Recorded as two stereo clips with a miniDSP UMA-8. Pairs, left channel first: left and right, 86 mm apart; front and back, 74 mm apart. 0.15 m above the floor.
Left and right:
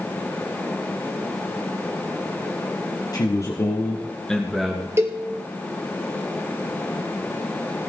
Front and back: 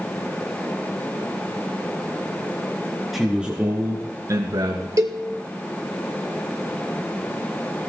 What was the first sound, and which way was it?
A man speaking, 90° left.